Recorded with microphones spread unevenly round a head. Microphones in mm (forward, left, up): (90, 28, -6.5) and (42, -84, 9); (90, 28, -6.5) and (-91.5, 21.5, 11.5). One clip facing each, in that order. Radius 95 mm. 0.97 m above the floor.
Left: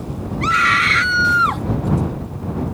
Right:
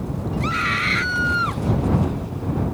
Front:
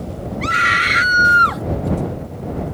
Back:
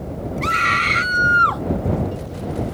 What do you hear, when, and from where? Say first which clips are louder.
0.4 s a scream: left 10 dB, front 1 dB; 85° left; by 1.6 s 65° left